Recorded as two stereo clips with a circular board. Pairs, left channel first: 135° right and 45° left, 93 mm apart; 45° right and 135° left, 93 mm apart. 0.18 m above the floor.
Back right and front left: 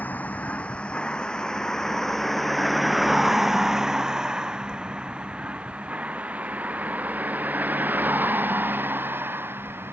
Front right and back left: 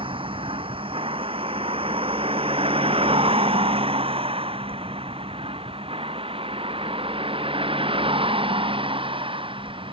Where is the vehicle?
155° left; by 9.9 s 115° left.